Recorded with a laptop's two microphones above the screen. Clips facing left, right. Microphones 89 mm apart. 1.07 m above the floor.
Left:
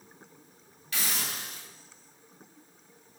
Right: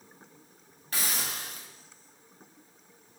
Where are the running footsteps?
No running footsteps in this recording.